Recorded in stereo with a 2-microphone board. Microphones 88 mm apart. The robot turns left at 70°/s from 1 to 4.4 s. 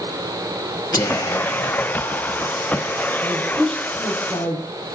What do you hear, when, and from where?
0.9 s whispering: 120° left, 1.9 m; by 2.5 s 15° left, 1.9 m
3.2 s a woman speaking: 155° right, 5.5 m; by 4.6 s 120° left, 5.5 m